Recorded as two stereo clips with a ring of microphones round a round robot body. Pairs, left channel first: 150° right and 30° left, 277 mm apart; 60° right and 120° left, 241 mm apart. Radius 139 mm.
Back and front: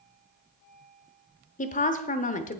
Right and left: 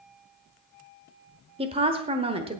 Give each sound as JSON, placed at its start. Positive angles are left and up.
{"t": 1.6, "sound": "a woman speaking", "azimuth_deg": 170, "distance_m": 1.0}